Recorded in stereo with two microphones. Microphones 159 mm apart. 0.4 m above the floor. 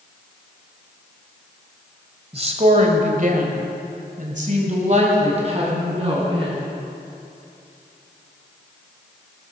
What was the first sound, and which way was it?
A woman speaking, 40° right (ahead or behind).